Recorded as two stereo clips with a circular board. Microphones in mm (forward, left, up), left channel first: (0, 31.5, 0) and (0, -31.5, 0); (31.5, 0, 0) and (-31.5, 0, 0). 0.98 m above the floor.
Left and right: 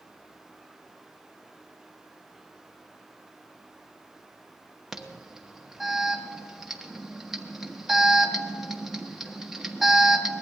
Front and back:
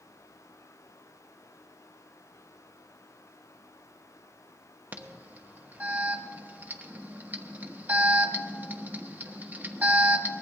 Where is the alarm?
170° right, 1.0 m.